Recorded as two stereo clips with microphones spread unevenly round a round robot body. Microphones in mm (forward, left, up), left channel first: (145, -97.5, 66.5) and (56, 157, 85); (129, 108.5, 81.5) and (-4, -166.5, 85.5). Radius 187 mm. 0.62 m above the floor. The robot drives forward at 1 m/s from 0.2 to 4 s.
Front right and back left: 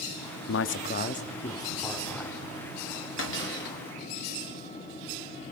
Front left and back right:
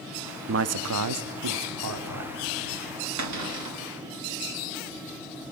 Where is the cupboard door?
100° right, 2 m; by 3.8 s 120° right, 2 m.